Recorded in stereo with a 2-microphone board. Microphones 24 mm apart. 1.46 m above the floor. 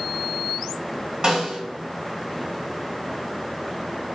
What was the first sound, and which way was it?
A snare drum, 40° right (ahead or behind).